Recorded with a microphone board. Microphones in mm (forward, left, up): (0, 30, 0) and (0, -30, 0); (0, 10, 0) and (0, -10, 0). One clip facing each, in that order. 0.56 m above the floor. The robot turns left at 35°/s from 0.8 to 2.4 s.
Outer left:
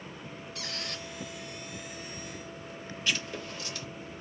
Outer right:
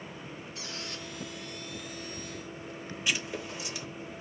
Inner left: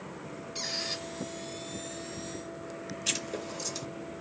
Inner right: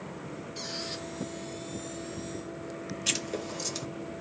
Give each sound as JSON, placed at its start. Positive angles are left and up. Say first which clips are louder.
{"t": 0.6, "sound": "a squeak", "louder": "outer left 3 dB, inner left 4 dB", "side_deg": 75, "distance_m": 1.1}
{"t": 3.1, "sound": "writing", "louder": "even, inner right 2 dB", "side_deg": -15, "distance_m": 0.8}